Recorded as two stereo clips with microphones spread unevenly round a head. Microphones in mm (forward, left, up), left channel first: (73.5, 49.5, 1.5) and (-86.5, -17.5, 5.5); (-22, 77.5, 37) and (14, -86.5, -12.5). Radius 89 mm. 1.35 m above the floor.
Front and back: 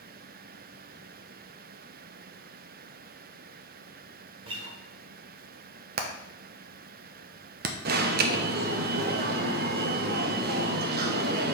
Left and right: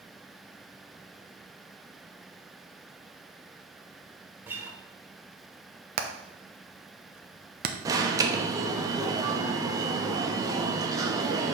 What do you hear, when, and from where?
4.5 s a guitar: 175° right, 1.2 m
6.0 s hammering: 110° right, 0.9 m
7.8 s an alarm: 160° right, 0.8 m